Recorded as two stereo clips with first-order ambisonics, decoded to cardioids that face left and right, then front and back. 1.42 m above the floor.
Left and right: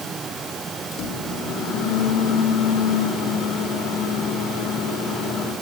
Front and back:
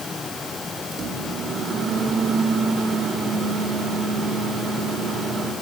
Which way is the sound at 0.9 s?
125° left.